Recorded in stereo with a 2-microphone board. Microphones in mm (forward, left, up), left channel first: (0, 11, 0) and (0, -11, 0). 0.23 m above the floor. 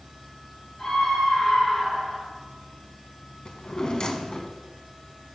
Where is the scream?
30° left (ahead or behind), 3 m.